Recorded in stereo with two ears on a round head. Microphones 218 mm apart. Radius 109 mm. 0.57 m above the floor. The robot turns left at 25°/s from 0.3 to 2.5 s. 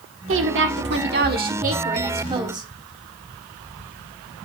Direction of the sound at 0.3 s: 105° right.